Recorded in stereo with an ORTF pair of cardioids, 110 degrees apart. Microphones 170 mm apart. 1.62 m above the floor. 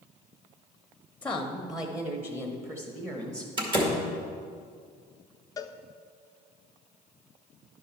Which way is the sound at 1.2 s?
10° left.